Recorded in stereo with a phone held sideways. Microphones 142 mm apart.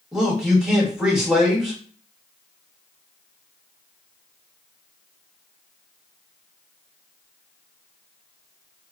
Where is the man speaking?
5° right (ahead or behind), 1.3 m.